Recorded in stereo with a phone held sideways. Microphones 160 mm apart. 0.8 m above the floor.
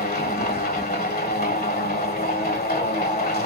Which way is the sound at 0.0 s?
75° left (ahead or behind).